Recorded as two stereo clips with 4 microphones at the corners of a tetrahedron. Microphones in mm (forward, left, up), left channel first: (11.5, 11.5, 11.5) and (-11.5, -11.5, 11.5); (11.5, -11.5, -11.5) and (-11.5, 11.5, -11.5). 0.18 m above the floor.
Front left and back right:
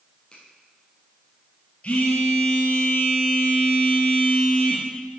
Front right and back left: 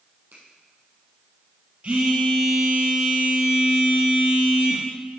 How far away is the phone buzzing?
About 3.5 m.